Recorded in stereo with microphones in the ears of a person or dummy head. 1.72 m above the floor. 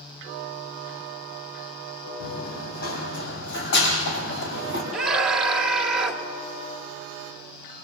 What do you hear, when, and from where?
2.2 s running footsteps: 60° left (ahead or behind), 3 m; by 4.8 s 70° left (ahead or behind), 5.5 m
4.9 s a scream: centre (ahead or behind), 2.5 m